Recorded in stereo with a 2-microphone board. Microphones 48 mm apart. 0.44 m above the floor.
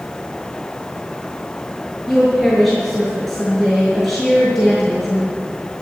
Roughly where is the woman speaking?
Centre.